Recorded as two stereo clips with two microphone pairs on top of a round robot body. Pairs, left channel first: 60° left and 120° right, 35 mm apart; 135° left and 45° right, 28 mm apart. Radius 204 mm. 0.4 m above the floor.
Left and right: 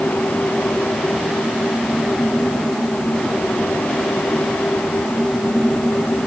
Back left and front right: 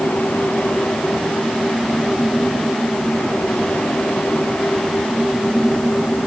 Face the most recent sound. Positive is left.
No sound to turn to.